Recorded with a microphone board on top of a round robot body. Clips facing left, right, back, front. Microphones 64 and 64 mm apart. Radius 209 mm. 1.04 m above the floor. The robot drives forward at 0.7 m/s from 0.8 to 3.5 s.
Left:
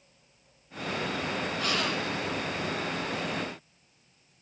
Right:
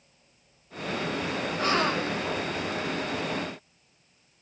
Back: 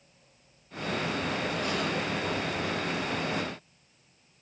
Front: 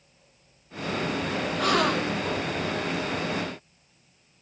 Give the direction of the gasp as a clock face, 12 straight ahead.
1 o'clock.